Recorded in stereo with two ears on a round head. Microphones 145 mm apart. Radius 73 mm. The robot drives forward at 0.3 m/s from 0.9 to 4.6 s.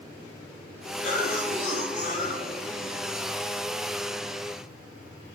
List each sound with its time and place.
1.0 s a cough: 55° left (ahead or behind), 3.5 m; by 3.0 s 50° left (ahead or behind), 3.5 m